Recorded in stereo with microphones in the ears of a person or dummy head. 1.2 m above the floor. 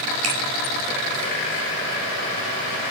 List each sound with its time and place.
0.2 s a finger snap: 40° right (ahead or behind), 4 m